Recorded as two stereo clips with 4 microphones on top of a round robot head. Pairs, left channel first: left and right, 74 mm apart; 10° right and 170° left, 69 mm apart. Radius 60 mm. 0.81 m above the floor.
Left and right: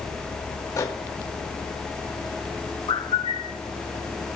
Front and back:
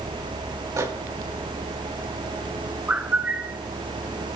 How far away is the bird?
About 0.9 m.